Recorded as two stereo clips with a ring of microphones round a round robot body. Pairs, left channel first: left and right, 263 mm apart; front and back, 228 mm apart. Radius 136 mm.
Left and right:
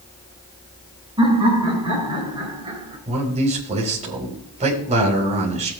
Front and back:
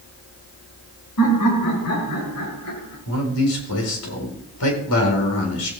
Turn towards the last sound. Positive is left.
turn(degrees=-25)